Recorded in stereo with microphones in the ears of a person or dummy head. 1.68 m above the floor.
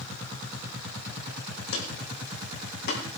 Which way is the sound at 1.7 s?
65° left (ahead or behind).